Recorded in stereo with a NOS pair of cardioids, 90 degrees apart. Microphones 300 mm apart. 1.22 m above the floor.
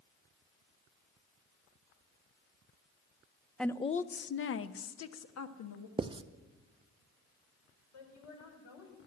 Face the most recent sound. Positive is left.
turn(degrees=70)